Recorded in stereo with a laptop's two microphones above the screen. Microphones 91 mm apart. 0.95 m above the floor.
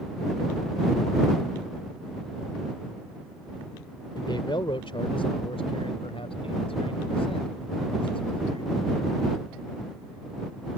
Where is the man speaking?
55° left (ahead or behind); by 9.5 s 65° left (ahead or behind).